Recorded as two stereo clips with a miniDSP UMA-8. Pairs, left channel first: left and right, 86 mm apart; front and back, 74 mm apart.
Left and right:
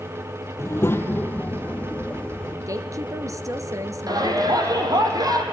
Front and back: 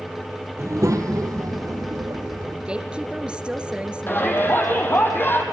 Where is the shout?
55° right, 4 m.